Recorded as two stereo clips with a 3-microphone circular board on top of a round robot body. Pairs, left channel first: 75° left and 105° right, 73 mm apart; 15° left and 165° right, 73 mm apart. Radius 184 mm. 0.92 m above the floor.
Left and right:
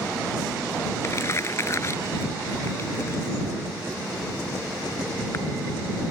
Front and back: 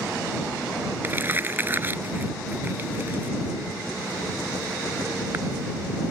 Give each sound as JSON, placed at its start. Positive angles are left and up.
{"t": 1.0, "sound": "crumpling", "azimuth_deg": 130}